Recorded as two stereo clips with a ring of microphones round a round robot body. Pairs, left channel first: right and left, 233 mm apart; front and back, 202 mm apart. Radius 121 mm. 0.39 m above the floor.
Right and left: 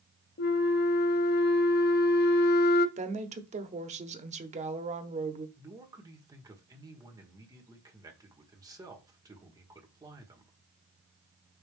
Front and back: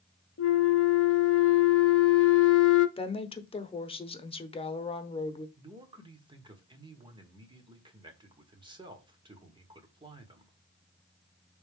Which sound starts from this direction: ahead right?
A flute, at 0.4 s.